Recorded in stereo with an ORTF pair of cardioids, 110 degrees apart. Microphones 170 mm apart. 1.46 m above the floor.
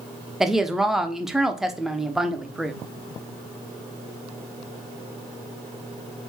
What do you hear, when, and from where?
0.4 s a woman speaking: 5° right, 0.7 m